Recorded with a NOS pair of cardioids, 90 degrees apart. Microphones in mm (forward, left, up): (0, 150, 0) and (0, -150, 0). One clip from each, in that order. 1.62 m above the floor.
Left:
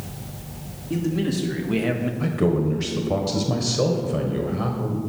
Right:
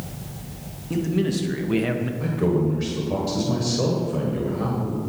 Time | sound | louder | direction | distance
0.9 | a man speaking | right 1 dB | 20° right | 1.9 m
2.2 | a man speaking | even | 25° left | 1.4 m